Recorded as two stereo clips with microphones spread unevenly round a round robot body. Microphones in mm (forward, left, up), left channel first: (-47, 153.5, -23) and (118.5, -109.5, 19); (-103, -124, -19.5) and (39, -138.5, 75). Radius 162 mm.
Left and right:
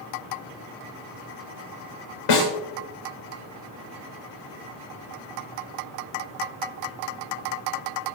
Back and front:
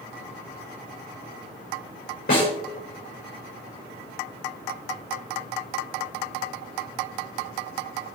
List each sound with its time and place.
2.3 s a snare drum: 130° left, 6 m